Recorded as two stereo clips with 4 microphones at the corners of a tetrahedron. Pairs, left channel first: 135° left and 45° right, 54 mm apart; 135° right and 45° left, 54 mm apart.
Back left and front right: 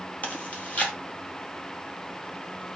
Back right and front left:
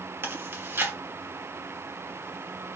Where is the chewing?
80° left, 3.5 m.